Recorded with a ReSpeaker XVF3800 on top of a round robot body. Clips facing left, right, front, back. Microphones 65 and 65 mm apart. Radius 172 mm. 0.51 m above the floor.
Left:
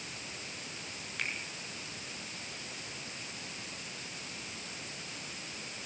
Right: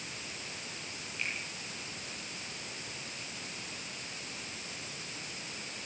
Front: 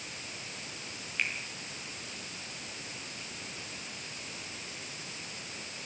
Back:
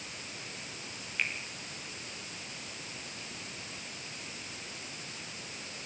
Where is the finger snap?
90° left, 6.5 m.